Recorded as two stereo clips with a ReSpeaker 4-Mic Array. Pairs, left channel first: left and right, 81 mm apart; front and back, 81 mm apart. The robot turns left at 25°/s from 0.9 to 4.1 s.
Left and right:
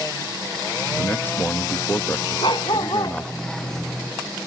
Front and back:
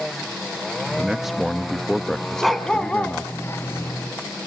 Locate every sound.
1.0 s a man speaking: 105° left, 0.8 m; by 3.3 s 50° left, 0.8 m
2.4 s a dog barking: 90° left, 1.8 m; by 3.2 s 70° left, 1.8 m